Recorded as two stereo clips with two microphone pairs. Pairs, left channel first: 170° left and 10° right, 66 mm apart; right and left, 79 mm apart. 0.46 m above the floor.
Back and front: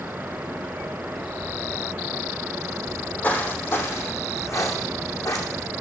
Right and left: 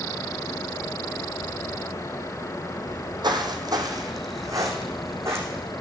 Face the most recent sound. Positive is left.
turn(degrees=145)